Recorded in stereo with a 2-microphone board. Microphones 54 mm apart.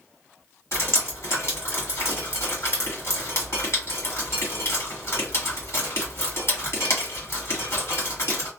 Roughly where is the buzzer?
No buzzer in this recording.